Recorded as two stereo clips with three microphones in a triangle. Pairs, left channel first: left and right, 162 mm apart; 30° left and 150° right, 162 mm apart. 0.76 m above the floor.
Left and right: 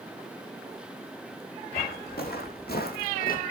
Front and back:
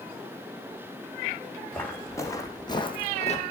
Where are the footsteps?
105° left, 3.5 m; by 3.4 s 70° left, 1.7 m.